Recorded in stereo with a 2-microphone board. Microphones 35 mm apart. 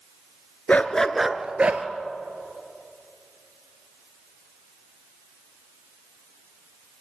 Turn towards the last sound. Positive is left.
turn(degrees=-45)  # may be behind; listen again after turning